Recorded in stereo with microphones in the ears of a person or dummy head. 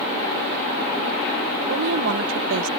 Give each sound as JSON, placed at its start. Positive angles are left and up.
{"t": 1.6, "sound": "a woman speaking", "side_deg": -65}